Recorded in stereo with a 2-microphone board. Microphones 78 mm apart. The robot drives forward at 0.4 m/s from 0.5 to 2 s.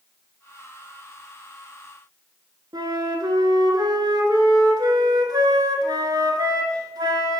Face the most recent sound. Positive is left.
turn(degrees=-65)  # may be behind; listen again after turning